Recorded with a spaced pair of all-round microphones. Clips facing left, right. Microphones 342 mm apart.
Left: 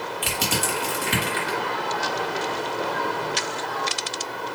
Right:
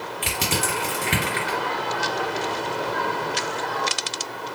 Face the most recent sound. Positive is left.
turn(degrees=-40)  # may be behind; listen again after turning